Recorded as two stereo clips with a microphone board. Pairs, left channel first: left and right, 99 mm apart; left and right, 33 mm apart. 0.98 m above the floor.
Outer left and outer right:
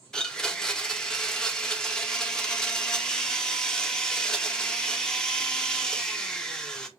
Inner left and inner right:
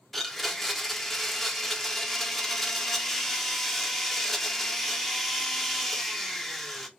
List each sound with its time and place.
0.1 s a blender: 5° left (ahead or behind), 0.7 m